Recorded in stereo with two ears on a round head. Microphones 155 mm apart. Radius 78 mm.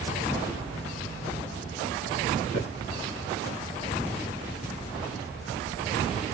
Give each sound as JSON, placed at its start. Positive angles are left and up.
{"t": 2.5, "sound": "footsteps", "side_deg": 70, "distance_m": 3.0}